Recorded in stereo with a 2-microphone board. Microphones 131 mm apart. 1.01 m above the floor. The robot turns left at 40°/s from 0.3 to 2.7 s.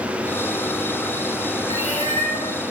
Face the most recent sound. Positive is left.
turn(degrees=-85)